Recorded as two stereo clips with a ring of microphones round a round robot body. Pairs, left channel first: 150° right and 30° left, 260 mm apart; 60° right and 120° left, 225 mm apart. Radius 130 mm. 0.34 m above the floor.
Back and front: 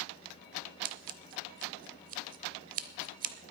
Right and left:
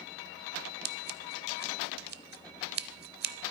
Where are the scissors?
85° left, 0.8 m.